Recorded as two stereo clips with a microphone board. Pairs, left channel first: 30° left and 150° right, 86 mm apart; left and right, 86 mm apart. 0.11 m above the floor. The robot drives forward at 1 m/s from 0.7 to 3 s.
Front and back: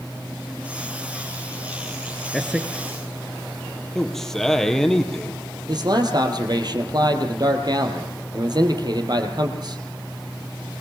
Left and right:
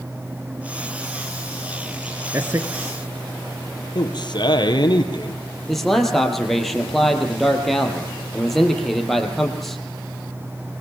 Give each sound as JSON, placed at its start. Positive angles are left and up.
{"t": 2.3, "sound": "a man speaking", "azimuth_deg": -60, "distance_m": 1.3}
{"t": 4.0, "sound": "a man speaking", "azimuth_deg": 115, "distance_m": 2.5}
{"t": 5.7, "sound": "a man speaking", "azimuth_deg": 180, "distance_m": 3.0}